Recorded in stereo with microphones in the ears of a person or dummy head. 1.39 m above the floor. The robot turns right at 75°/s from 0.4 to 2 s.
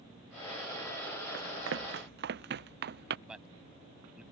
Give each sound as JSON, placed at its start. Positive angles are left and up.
{"t": 1.3, "sound": "running footsteps", "side_deg": -60}
{"t": 3.3, "sound": "a man speaking", "side_deg": 0}